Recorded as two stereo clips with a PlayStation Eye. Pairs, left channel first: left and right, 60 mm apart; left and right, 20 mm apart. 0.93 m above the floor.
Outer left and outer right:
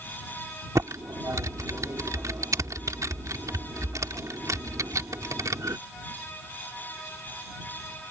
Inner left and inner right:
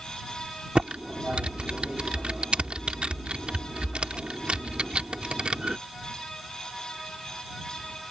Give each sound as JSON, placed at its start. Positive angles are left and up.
{"t": 0.8, "sound": "typing on a keyboard", "side_deg": -75}